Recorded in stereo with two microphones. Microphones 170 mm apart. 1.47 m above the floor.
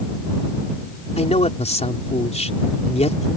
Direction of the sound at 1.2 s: 40° left (ahead or behind).